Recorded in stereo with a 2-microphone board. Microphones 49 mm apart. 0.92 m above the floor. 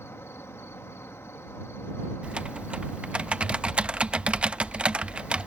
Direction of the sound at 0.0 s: 70° left (ahead or behind).